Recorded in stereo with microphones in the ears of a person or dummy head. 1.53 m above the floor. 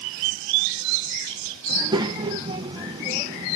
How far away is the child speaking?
About 1.0 m.